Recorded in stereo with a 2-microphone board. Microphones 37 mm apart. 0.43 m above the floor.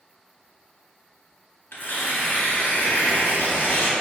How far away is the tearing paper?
About 0.7 m.